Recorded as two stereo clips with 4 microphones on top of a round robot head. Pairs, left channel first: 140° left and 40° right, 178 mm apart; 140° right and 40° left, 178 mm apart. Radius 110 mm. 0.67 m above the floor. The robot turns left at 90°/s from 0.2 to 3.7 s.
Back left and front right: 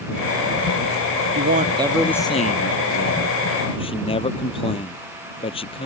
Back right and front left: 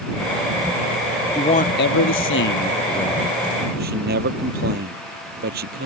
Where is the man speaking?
70° right; by 5.9 s 80° left.